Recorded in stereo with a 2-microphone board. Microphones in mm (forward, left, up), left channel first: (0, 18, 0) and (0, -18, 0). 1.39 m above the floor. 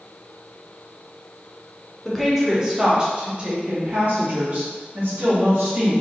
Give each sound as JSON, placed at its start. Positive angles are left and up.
{"t": 2.0, "sound": "a woman speaking", "side_deg": 0, "distance_m": 1.0}